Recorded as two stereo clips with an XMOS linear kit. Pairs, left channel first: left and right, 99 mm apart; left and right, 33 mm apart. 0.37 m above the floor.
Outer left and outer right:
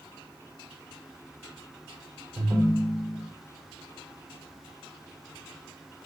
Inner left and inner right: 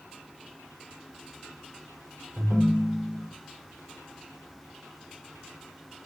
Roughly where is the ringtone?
Right.